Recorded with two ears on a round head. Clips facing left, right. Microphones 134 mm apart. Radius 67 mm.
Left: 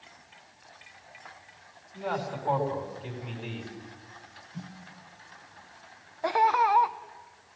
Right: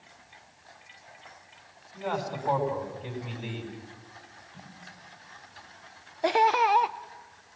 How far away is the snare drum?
About 4.5 m.